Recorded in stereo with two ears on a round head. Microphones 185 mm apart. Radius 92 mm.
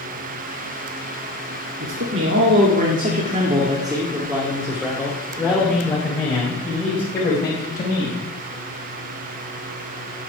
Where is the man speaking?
65° right (ahead or behind), 2 m; by 8.2 s 30° left (ahead or behind), 5 m.